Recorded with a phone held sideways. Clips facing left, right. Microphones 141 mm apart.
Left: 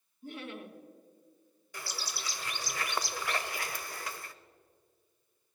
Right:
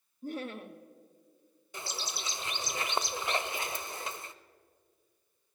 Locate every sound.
0.2 s laughter: 40° right (ahead or behind), 1.0 m
1.7 s a bird: 25° right (ahead or behind), 0.6 m